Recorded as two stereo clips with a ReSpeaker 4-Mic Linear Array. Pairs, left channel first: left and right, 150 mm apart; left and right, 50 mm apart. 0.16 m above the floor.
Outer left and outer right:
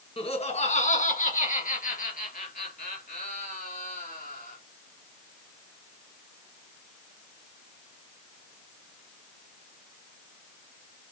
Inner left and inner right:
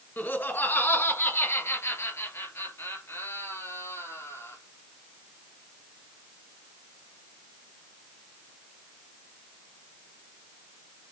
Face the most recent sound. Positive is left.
turn(degrees=75)  # may be behind; listen again after turning